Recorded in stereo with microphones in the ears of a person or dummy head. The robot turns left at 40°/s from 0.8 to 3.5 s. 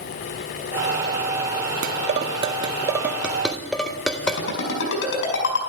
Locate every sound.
1.8 s dishes clattering: 40° right (ahead or behind), 0.6 m; by 4.4 s 5° left (ahead or behind), 0.6 m
4.3 s a ringtone: 80° left, 5.5 m